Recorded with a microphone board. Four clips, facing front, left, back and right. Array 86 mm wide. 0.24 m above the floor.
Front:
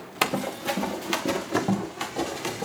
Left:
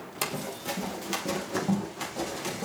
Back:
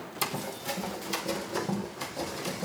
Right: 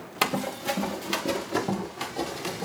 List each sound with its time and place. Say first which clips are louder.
0.2 s running footsteps: right 7 dB, front 8 dB; 25° right, 1.6 m; by 2.6 s 5° right, 4 m